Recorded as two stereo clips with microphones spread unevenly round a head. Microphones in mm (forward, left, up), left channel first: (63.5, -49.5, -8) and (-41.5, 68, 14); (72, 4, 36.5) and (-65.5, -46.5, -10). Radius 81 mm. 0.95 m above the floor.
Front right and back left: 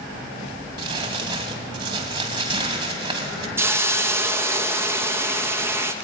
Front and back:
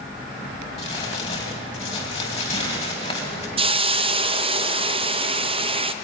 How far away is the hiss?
About 1.0 m.